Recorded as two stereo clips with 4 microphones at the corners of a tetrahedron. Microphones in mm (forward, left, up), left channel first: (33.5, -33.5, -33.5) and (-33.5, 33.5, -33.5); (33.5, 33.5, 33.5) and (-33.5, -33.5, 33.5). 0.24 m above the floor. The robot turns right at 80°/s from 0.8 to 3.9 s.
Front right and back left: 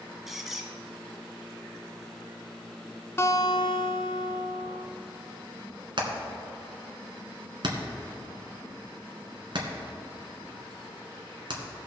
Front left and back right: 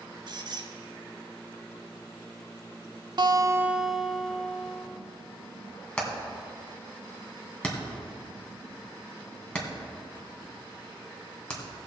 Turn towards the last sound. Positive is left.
turn(degrees=125)